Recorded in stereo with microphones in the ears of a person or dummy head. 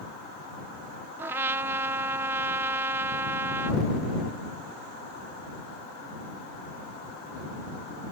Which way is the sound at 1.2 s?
15° right (ahead or behind).